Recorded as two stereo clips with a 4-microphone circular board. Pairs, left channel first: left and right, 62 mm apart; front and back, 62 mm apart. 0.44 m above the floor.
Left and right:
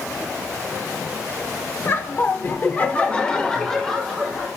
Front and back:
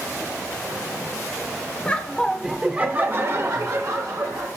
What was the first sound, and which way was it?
Laughter, 60° left.